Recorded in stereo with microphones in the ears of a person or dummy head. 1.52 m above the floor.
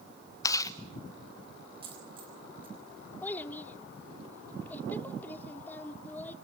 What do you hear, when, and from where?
0.4 s chewing: 20° left (ahead or behind), 1.5 m
1.8 s a dropped coin: 25° right (ahead or behind), 3.5 m
3.2 s a child speaking: 10° left (ahead or behind), 2.5 m